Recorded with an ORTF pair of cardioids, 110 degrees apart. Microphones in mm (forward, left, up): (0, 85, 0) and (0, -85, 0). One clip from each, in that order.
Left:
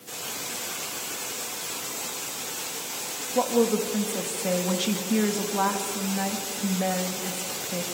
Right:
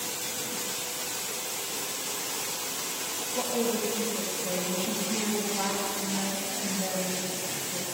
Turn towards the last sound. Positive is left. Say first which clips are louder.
# left 7 dB
turn(degrees=50)